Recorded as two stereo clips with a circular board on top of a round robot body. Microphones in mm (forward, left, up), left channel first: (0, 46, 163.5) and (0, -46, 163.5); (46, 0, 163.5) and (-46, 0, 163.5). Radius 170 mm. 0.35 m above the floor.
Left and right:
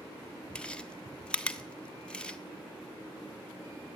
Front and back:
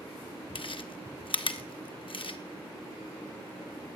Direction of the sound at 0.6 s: 10° left.